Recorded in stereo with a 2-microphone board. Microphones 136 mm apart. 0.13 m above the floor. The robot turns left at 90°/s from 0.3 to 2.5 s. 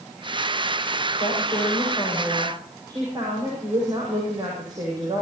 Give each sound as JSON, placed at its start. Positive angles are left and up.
{"t": 1.2, "sound": "a woman speaking", "azimuth_deg": 85, "distance_m": 8.5}